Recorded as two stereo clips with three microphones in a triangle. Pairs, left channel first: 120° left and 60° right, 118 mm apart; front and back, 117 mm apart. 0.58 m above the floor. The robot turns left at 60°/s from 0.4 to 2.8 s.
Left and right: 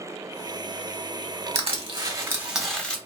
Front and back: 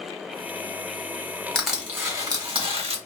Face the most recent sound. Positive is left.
turn(degrees=-160)